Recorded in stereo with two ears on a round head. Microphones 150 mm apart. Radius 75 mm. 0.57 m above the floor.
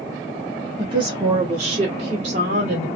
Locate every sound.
0.8 s a woman speaking: 30° right (ahead or behind), 1.3 m; by 2.9 s 55° right (ahead or behind), 2 m